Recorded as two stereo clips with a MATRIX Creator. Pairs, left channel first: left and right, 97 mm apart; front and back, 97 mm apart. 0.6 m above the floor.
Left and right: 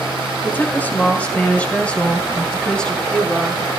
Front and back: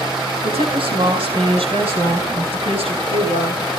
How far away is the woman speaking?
About 9.5 m.